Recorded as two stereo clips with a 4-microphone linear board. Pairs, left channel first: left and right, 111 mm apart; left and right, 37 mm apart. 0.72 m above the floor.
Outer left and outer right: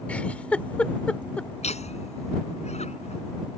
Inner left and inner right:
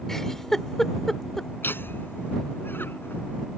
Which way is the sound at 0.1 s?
10° left (ahead or behind).